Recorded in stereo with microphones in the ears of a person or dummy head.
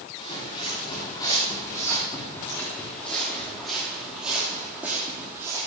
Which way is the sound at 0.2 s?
30° left (ahead or behind).